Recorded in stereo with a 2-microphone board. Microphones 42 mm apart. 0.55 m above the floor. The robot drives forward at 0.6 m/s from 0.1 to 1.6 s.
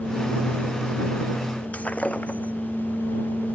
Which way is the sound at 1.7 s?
35° left (ahead or behind).